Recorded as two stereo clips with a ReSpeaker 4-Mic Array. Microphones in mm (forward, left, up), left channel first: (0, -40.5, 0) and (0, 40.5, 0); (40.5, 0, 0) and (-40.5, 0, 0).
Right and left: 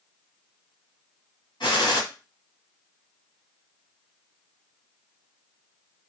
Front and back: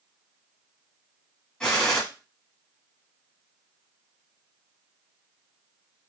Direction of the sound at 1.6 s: 80° right.